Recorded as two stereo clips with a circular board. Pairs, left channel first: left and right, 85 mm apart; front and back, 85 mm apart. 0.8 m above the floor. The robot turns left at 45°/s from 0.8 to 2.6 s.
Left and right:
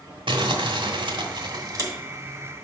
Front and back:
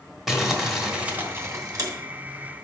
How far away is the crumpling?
About 1.3 m.